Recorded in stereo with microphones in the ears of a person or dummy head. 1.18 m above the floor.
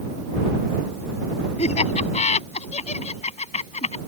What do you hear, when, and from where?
1.6 s laughter: 40° left (ahead or behind); by 4.0 s 35° left (ahead or behind)